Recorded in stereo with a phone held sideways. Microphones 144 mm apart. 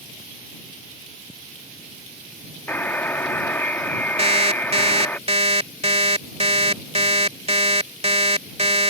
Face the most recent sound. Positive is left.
turn(degrees=-45)  # may be behind; listen again after turning